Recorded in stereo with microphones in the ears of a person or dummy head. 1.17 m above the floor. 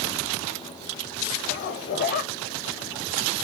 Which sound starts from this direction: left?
A zipper, at 1.4 s.